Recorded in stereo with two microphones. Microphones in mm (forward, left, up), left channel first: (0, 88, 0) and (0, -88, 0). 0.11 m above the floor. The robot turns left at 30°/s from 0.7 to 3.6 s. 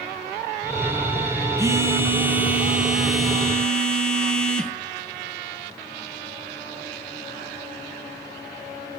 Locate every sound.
1.6 s a phone buzzing: 15° right (ahead or behind), 0.9 m; by 4.7 s 5° left (ahead or behind), 0.9 m